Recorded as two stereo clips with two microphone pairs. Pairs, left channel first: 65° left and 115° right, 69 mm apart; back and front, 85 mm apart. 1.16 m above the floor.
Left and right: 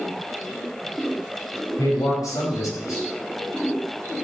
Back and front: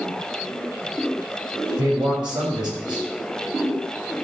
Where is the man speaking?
35° left, 4.5 m.